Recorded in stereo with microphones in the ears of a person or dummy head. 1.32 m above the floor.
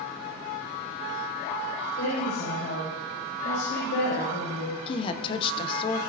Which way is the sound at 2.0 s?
70° left (ahead or behind).